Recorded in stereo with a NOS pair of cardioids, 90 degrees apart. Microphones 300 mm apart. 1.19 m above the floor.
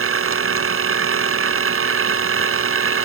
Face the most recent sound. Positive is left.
turn(degrees=-45)